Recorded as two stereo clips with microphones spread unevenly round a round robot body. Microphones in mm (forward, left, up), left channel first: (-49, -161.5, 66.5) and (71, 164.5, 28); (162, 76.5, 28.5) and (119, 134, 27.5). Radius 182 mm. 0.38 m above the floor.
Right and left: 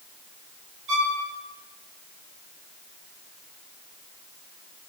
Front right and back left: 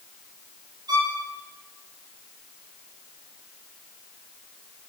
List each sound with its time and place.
0.9 s a violin: 105° left, 7.5 m